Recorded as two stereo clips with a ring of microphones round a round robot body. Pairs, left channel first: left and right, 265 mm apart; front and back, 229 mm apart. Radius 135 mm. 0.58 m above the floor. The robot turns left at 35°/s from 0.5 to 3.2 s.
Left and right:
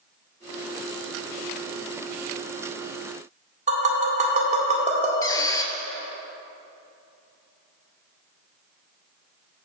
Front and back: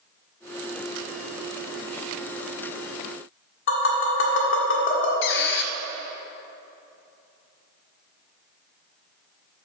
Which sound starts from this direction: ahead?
A squeak, at 5.2 s.